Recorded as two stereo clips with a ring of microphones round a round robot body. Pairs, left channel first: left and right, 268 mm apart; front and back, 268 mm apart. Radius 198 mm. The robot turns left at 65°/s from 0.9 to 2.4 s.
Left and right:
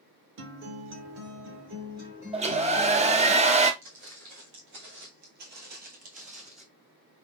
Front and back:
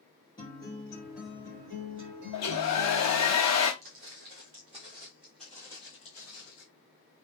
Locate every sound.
0.4 s a guitar: 75° right, 0.7 m; by 3.3 s 175° right, 0.7 m
2.3 s a hair dryer: 20° right, 0.5 m; by 3.7 s 25° right, 0.5 m
3.8 s footsteps: 135° right, 1.4 m; by 6.7 s 35° right, 1.1 m